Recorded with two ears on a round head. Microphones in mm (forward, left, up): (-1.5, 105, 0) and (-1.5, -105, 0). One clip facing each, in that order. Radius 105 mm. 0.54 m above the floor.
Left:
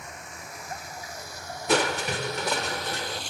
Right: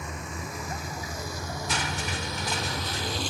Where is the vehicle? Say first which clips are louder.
Right 6 dB; 65° right (ahead or behind).